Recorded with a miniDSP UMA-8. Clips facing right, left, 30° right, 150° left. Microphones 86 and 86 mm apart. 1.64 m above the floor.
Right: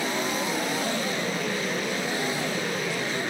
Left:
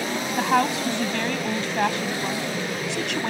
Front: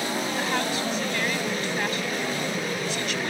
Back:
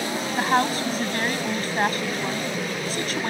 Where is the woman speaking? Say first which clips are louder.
Left 6 dB, back 9 dB; 100° left.